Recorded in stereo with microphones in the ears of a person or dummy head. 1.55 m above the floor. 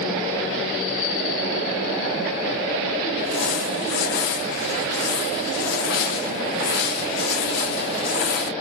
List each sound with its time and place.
3.2 s crumpling: 60° left (ahead or behind), 1.4 m